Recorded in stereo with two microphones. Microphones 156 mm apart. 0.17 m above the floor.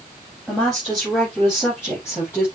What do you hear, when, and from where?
0.5 s a woman speaking: 10° left (ahead or behind), 7.5 m; by 2.5 s 15° left (ahead or behind), 6.5 m